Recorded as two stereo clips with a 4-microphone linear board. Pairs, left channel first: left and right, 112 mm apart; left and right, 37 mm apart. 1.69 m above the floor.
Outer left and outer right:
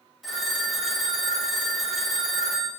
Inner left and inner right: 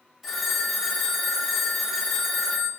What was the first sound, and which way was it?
A phone ringing, centre (ahead or behind).